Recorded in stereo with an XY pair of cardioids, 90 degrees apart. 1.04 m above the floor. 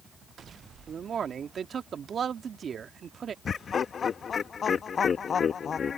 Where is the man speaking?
50° right.